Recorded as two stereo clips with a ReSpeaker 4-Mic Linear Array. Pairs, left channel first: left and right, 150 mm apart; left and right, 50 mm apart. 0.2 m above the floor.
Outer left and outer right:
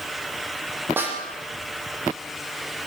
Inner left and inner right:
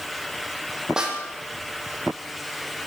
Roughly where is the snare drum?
Centre.